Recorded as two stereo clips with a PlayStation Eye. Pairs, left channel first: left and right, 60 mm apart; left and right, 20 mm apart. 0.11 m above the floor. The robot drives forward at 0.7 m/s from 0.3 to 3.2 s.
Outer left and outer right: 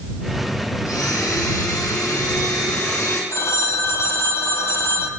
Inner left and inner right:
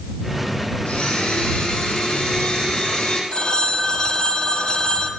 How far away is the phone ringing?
About 1.8 m.